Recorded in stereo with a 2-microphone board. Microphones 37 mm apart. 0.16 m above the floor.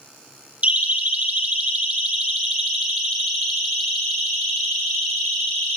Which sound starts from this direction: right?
A siren, at 0.6 s.